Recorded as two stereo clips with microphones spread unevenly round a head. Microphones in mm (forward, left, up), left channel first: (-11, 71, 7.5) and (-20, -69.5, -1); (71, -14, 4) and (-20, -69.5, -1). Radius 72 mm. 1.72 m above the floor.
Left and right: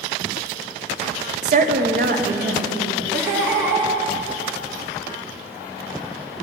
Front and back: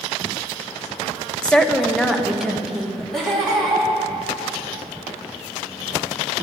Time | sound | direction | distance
1.4 | a woman speaking | 50° right | 0.8 m
3.1 | laughter | 55° right | 3.5 m